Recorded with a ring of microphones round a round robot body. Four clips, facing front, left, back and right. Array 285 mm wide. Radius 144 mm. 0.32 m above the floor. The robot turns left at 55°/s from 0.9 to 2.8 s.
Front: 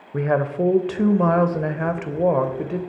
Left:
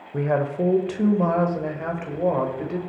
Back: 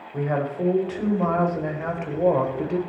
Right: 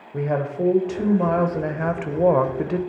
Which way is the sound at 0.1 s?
10° left.